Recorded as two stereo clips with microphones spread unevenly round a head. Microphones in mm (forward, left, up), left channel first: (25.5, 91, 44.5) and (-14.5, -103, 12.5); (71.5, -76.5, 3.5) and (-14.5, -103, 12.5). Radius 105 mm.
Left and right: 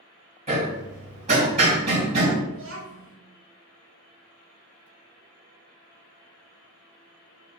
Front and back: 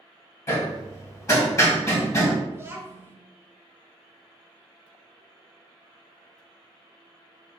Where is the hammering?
40° right, 1.5 m.